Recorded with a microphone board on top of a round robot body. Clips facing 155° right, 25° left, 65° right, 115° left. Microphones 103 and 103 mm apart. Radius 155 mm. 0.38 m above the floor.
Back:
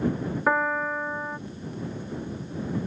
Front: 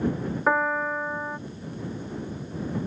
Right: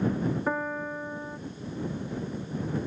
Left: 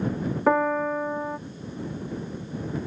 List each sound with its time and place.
0.5 s a piano: 105° left